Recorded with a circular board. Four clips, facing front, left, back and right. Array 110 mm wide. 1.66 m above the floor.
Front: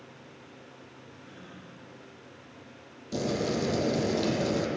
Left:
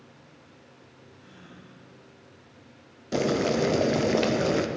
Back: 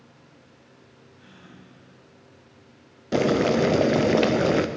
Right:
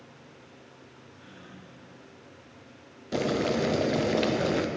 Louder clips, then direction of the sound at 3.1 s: Left 2 dB, back 9 dB; 170° left.